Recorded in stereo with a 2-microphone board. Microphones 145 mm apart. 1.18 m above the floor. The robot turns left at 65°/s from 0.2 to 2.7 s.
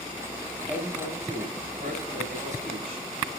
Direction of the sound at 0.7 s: 10° right.